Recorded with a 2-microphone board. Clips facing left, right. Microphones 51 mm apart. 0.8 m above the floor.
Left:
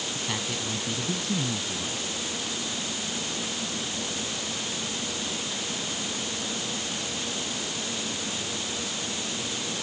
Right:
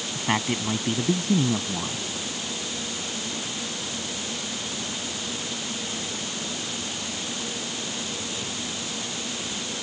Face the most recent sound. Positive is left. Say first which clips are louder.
# right 10 dB
turn(degrees=-40)  # may be behind; listen again after turning